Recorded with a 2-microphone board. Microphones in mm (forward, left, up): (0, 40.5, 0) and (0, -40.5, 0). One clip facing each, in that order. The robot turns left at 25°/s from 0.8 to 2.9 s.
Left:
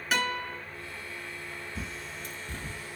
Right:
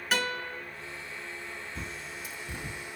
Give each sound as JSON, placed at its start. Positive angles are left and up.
{"t": 0.1, "sound": "a guitar", "side_deg": 0, "distance_m": 1.3}
{"t": 1.8, "sound": "a bird", "side_deg": 0, "distance_m": 0.5}